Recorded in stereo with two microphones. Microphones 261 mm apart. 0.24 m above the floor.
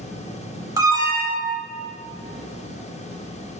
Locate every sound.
0.8 s an alarm: 10° right (ahead or behind), 0.7 m